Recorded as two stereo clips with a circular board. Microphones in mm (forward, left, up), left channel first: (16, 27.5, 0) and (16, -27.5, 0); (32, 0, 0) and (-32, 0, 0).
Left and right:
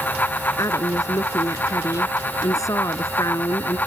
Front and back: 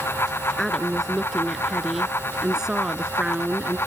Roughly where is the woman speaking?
Left.